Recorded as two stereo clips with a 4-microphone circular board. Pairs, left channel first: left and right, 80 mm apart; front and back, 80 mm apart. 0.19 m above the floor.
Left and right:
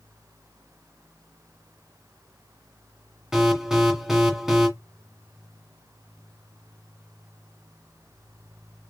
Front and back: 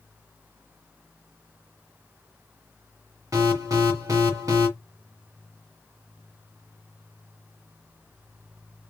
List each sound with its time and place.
3.3 s an alarm: 175° right, 1.4 m